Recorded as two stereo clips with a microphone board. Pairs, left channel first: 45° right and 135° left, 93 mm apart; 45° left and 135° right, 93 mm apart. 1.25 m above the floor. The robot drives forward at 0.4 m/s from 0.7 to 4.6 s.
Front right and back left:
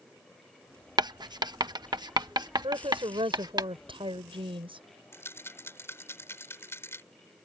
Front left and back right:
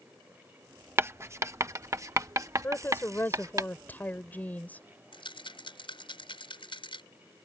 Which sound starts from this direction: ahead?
A rattle, at 5.1 s.